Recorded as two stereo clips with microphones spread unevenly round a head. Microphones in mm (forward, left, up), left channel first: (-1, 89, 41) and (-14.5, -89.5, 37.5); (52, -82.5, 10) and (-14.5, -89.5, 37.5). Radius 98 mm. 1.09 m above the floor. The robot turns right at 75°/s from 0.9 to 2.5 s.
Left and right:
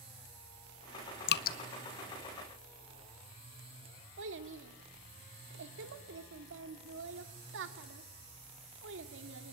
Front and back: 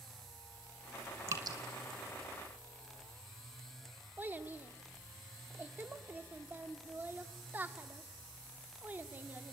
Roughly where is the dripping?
Left.